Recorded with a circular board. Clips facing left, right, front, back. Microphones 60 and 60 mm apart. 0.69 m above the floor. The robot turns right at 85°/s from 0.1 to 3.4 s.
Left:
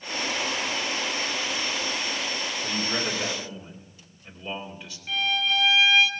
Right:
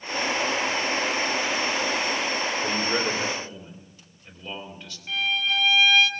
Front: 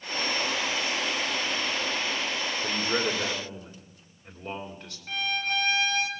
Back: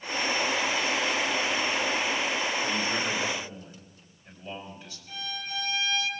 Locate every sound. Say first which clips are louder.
2.6 s a man speaking: right 1 dB, front 1 dB; 60° right, 3 m; by 5.0 s 5° left, 3 m
5.1 s a violin: even, front 8 dB; straight ahead, 1.2 m